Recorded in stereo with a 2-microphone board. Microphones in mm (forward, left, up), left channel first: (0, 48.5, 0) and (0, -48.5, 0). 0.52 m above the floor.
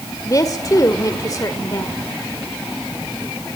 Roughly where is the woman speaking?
Left.